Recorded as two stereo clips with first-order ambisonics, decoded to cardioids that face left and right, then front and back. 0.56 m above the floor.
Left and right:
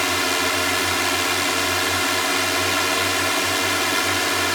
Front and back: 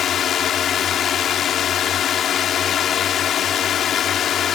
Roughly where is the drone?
Ahead.